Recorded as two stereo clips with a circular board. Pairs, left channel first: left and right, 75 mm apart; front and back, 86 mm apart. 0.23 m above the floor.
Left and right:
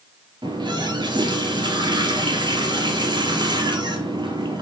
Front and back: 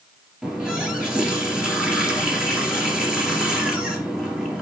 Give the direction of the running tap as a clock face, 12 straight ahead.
3 o'clock.